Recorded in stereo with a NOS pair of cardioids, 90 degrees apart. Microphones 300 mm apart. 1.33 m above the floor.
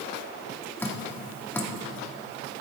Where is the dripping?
10° left, 1.6 m.